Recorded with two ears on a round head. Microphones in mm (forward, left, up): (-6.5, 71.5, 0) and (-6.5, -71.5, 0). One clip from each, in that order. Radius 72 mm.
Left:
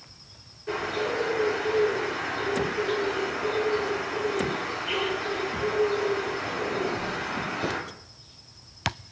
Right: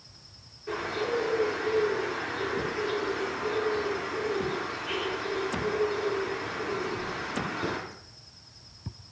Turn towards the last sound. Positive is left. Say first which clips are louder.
# left 2 dB
turn(degrees=-5)  # may be behind; listen again after turning